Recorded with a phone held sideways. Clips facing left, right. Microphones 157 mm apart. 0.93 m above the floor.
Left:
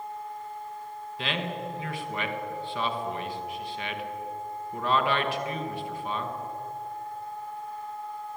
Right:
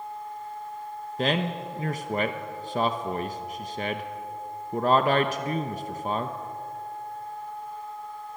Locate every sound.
1.2 s a man speaking: 40° right (ahead or behind), 1.1 m